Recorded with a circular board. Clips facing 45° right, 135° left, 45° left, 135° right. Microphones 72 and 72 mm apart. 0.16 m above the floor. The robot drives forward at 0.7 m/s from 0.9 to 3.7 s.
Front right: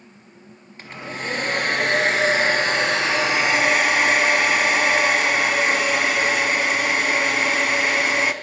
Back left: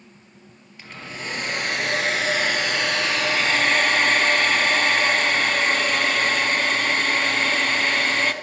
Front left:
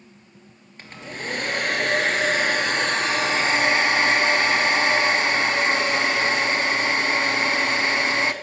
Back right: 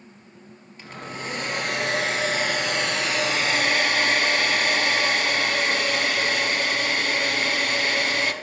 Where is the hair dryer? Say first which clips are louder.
Front right 4 dB, even; 5° left, 2.5 m; by 8.3 s 20° left, 1.0 m.